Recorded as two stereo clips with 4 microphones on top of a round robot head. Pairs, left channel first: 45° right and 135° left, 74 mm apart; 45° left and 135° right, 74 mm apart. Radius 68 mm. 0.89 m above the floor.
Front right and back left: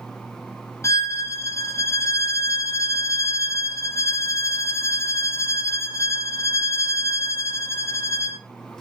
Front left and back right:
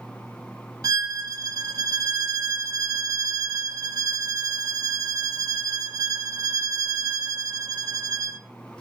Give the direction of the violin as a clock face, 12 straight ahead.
3 o'clock.